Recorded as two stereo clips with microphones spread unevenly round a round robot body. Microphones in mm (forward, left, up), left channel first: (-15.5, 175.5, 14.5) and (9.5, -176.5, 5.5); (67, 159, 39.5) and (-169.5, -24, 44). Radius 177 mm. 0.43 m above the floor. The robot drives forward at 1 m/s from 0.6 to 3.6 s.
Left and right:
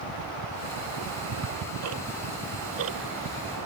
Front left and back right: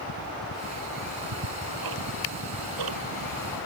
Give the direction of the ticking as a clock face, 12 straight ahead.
4 o'clock.